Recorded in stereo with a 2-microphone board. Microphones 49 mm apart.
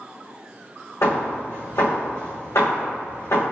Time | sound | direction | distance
1.0 | hammering | 75° left (ahead or behind) | 3 m